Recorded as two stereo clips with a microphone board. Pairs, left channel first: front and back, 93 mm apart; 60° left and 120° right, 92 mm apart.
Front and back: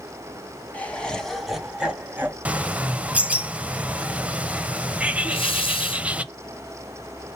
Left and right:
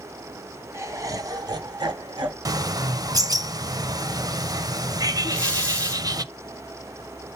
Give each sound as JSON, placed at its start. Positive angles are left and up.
{"t": 0.7, "sound": "laughter", "azimuth_deg": -70, "distance_m": 1.5}
{"t": 2.5, "sound": "a bird", "azimuth_deg": -110, "distance_m": 0.5}
{"t": 5.2, "sound": "breathing", "azimuth_deg": -20, "distance_m": 1.4}